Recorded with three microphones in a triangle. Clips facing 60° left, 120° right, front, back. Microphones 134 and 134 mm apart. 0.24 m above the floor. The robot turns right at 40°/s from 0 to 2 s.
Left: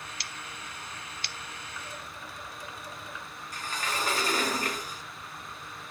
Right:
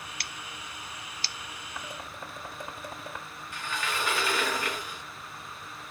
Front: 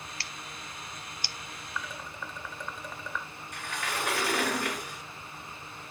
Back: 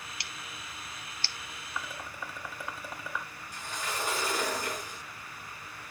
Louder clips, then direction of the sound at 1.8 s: Right 5 dB, even; 110° right.